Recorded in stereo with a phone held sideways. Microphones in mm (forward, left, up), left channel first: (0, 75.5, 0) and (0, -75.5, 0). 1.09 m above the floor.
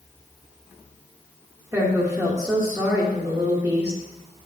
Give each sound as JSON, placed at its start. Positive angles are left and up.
{"t": 1.7, "sound": "a woman speaking", "side_deg": -15, "distance_m": 1.3}